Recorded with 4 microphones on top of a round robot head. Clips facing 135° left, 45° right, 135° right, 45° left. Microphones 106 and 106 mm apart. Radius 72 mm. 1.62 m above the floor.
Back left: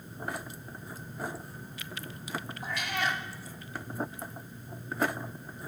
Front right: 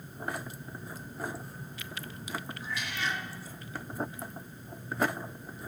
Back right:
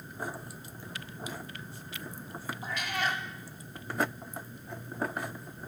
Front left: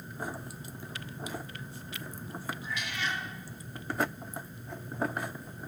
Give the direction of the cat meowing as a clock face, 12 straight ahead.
6 o'clock.